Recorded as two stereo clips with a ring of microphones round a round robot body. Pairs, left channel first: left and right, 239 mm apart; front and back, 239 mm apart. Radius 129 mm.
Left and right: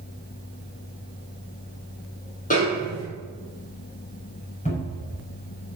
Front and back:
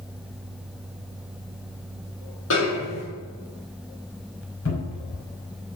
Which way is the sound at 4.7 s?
30° left.